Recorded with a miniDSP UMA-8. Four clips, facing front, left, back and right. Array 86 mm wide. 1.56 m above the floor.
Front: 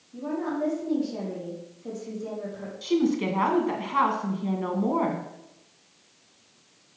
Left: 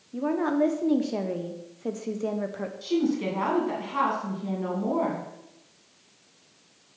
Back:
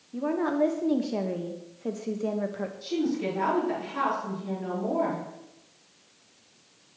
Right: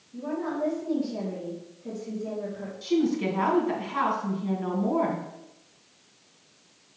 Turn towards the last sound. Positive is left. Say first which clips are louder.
# right 1 dB, front 5 dB
turn(degrees=0)